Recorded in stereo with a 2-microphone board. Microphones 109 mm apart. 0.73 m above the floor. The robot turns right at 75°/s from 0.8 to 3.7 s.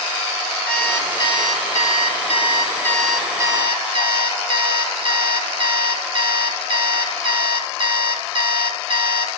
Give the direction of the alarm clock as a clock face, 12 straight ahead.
12 o'clock.